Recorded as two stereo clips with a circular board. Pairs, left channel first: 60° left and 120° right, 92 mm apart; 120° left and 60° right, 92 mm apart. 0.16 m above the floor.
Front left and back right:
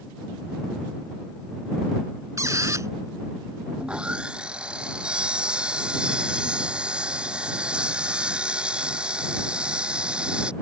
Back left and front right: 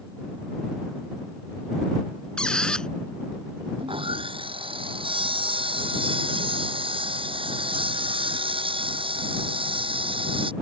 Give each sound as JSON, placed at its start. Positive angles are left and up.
{"t": 2.4, "sound": "a squeak", "azimuth_deg": -160}
{"t": 3.8, "sound": "sawing", "azimuth_deg": -40}